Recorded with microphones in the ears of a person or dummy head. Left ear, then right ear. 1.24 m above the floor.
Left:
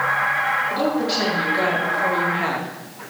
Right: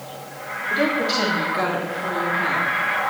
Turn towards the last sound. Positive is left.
turn(degrees=30)  # may be behind; listen again after turning